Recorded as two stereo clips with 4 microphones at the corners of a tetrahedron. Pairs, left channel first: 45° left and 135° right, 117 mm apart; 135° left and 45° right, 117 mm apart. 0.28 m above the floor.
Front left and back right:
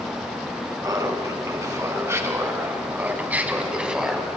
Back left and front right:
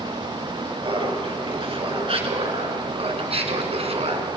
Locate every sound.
0.8 s laughter: 80° right, 4 m; by 4.3 s 50° right, 3 m